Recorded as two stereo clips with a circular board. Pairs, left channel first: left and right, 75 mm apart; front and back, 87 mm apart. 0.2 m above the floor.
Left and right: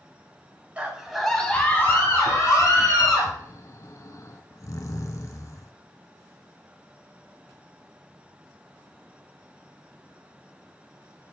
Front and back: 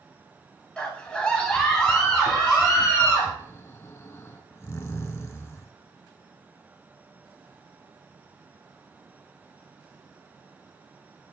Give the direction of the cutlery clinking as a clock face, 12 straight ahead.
I don't hear cutlery clinking.